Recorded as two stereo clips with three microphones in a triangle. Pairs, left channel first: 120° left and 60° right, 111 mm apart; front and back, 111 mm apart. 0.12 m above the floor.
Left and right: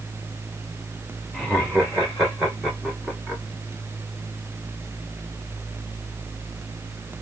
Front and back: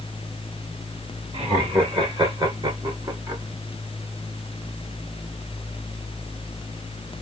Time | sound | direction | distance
1.3 | laughter | 150° right | 3 m